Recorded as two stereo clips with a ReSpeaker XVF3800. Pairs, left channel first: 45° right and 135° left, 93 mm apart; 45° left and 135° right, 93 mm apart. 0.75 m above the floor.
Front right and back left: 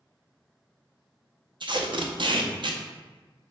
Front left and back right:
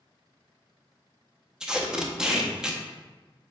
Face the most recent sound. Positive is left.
turn(degrees=140)